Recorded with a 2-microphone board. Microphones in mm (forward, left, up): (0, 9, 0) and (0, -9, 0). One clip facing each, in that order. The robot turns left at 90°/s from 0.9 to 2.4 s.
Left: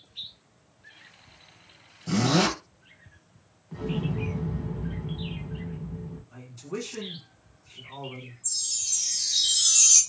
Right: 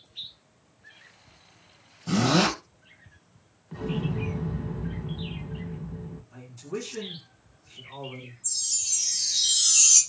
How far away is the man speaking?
About 2 m.